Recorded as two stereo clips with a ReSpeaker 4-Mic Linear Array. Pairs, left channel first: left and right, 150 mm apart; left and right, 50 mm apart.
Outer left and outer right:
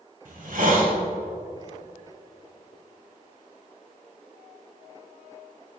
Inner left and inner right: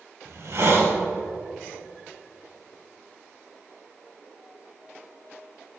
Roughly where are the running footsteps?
I don't hear running footsteps.